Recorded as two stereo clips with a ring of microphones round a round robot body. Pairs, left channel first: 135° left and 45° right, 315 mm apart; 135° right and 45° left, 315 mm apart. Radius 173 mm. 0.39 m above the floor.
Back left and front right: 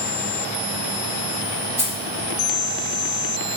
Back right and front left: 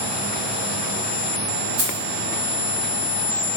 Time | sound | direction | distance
1.8 | keys jangling | 35° left | 1.6 m